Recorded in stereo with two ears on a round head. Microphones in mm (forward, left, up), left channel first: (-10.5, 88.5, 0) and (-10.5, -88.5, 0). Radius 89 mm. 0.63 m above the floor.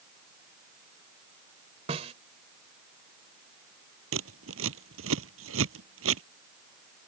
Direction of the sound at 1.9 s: 35° right (ahead or behind).